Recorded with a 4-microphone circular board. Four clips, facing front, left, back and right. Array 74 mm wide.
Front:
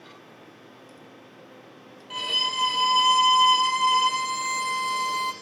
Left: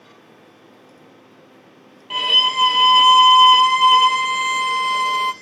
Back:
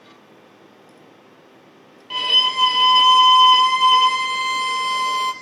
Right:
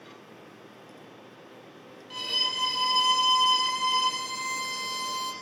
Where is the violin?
110° left, 3 m.